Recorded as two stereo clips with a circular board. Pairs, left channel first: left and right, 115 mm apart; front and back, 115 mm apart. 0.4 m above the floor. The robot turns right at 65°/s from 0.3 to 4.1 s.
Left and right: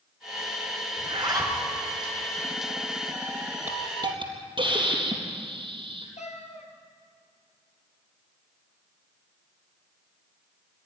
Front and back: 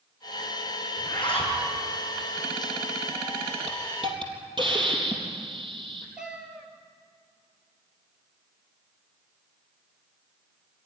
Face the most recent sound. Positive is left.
turn(degrees=95)